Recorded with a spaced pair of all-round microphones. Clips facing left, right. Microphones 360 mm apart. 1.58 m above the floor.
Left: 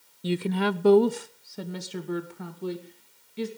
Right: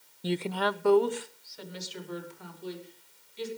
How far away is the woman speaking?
About 0.6 m.